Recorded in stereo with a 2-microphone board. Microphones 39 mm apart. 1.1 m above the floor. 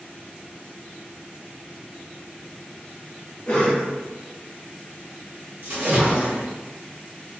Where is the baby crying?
No baby crying in this recording.